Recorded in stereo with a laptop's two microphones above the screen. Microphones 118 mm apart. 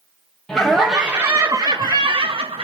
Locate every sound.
0.5 s laughter: 5° left (ahead or behind), 1.1 m; by 2.6 s 55° right (ahead or behind), 1.2 m